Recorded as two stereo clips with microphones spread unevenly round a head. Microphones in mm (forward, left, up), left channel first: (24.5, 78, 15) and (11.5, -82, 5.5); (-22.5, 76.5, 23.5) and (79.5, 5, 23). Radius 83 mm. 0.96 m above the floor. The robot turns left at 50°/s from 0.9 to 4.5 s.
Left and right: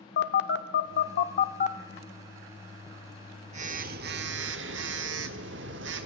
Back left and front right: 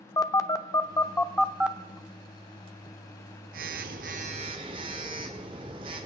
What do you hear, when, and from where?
0.2 s a phone buzzing: 85° left, 1.0 m; by 6.1 s 95° right, 1.0 m